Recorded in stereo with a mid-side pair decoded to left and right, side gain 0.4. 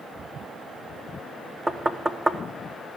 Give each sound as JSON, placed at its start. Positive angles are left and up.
{"t": 1.7, "sound": "knocking", "azimuth_deg": -20, "distance_m": 1.2}